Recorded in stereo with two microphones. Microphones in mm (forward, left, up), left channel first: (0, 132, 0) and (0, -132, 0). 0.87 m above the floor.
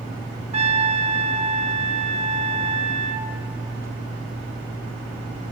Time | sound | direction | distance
0.5 | a trumpet | 25° right (ahead or behind) | 0.6 m